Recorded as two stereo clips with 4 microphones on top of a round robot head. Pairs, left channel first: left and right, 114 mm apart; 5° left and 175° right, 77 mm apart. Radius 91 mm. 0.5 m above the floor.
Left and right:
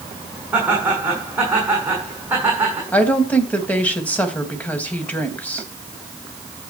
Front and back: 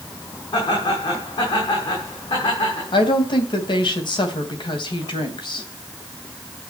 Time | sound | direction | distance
0.5 | laughter | 15° right | 6.5 m
2.9 | a woman speaking | 15° left | 3 m